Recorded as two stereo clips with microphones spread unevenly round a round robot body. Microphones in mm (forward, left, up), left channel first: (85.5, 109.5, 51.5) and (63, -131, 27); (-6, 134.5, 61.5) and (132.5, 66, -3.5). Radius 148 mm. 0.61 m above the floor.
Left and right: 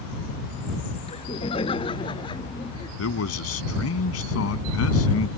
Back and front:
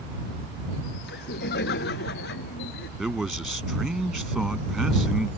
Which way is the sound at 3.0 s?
60° left.